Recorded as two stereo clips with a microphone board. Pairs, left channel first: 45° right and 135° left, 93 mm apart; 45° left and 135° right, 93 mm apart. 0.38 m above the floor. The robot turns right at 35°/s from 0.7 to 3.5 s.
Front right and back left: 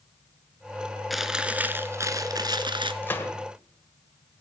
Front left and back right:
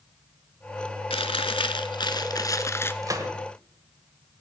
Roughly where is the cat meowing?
No cat meowing in this recording.